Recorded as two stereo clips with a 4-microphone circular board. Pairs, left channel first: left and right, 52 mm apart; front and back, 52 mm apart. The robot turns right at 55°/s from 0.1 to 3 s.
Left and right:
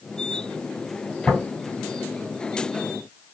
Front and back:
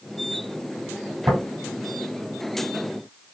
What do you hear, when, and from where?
1.3 s tapping: 175° right, 3 m; by 1.4 s 170° right, 3 m